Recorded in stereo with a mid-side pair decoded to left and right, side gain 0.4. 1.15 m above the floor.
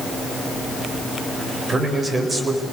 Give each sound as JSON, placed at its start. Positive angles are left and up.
{"t": 1.7, "sound": "a man speaking", "azimuth_deg": -35, "distance_m": 5.0}